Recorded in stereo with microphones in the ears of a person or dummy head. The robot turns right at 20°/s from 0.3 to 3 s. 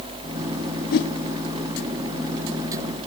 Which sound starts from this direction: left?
A whoosh, at 0.9 s.